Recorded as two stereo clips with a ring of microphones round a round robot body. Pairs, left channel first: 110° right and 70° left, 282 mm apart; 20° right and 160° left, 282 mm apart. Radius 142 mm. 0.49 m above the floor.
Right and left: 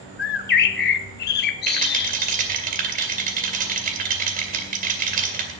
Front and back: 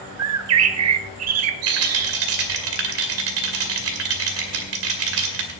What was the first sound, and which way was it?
A bird, 165° right.